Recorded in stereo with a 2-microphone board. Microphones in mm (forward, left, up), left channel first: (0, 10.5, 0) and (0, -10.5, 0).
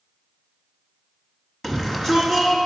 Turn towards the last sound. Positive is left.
turn(degrees=25)  # may be behind; listen again after turning